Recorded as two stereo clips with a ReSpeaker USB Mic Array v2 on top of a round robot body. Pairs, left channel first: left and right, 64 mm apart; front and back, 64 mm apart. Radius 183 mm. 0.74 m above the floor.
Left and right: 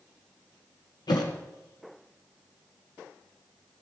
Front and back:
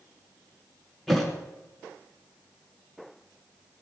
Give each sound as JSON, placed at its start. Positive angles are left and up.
{"t": 1.1, "sound": "a thud", "azimuth_deg": 85, "distance_m": 2.5}